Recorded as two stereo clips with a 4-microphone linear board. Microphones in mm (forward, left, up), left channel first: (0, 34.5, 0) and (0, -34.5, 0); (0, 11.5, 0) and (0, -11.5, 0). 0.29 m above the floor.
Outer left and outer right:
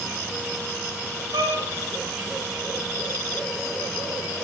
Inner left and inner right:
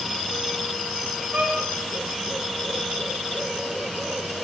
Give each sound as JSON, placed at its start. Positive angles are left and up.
{"t": 1.3, "sound": "a violin", "side_deg": -90, "distance_m": 5.5}